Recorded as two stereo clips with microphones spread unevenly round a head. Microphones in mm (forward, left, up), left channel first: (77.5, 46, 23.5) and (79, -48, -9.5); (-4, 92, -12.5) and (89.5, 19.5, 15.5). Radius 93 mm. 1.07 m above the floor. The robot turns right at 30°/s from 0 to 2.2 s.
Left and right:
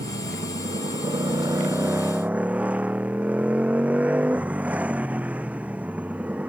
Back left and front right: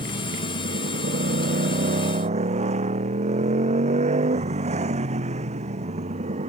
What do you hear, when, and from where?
0.0 s a motorcycle: 80° right; by 6.5 s 15° right